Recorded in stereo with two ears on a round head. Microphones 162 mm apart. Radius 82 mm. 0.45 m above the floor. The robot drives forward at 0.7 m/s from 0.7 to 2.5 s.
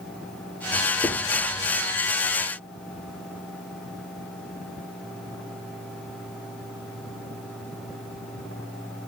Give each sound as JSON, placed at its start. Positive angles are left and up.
{"t": 1.0, "sound": "writing", "side_deg": 10, "distance_m": 5.0}